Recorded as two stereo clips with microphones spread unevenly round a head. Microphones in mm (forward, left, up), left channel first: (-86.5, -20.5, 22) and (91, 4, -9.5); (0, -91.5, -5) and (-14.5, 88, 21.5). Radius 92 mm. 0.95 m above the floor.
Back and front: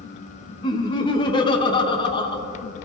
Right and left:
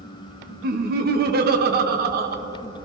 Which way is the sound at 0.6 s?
120° left.